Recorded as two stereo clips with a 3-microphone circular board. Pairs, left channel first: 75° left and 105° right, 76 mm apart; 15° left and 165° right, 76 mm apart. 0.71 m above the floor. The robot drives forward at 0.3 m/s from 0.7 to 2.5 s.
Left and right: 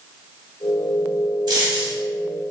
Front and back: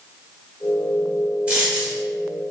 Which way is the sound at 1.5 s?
90° right.